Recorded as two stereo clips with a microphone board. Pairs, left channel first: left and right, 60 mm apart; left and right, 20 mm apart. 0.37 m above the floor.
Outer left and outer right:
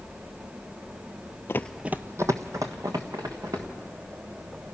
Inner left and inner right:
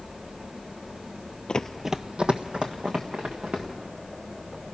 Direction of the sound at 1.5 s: 45° left (ahead or behind).